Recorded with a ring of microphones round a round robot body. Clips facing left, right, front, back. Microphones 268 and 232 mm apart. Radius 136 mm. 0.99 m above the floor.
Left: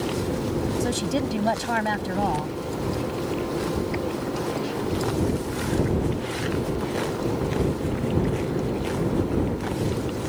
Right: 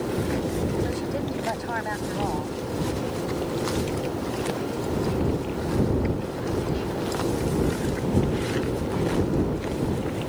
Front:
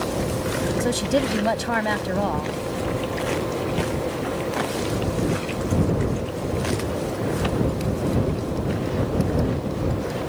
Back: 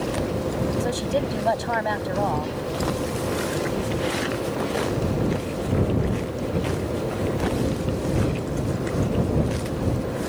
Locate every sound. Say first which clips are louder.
0.8 s a woman speaking: left 3 dB, front 3 dB; 55° left